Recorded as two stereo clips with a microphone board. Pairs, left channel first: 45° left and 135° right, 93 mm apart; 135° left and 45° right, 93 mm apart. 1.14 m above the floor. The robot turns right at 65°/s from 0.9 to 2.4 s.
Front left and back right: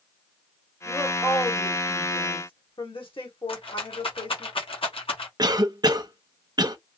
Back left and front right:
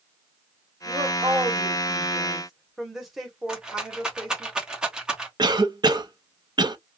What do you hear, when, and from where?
0.8 s a woman speaking: 55° right, 1.3 m; by 4.5 s 45° left, 1.3 m
3.5 s a rattle: 35° left, 1.0 m
5.4 s a cough: 90° right, 0.6 m